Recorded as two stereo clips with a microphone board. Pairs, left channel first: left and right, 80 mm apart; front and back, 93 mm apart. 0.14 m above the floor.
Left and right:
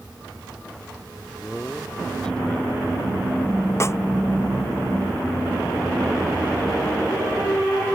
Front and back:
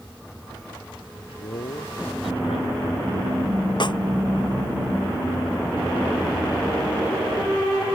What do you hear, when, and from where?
1.1 s a man speaking: 10° left
3.8 s a snare drum: 35° left